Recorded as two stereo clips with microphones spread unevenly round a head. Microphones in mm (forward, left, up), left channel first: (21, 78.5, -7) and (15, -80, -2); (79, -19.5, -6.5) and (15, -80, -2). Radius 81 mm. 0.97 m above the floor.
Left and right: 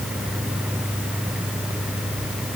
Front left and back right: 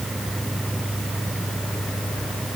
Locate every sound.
Only background noise.